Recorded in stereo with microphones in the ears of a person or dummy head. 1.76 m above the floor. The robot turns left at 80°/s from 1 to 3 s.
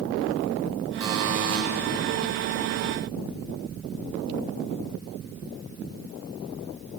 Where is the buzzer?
20° right, 6.5 m; by 1.6 s 70° right, 6.5 m.